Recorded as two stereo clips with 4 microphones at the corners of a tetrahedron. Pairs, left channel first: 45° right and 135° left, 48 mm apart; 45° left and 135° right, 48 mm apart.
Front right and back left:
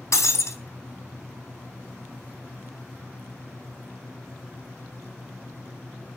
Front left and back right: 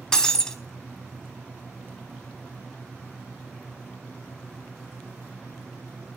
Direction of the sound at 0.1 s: 30° right.